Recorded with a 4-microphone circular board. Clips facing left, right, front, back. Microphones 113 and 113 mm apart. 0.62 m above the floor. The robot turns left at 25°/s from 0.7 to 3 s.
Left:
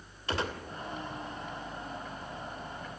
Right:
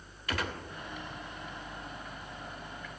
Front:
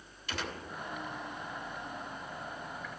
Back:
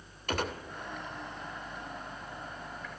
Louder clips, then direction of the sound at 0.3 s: Left 2 dB, back 6 dB; 150° left.